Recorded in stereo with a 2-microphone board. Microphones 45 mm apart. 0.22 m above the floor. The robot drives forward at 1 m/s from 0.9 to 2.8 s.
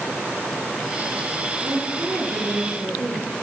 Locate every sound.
1.6 s a woman speaking: 65° right (ahead or behind), 4.5 m; by 3.4 s 70° right (ahead or behind), 4.5 m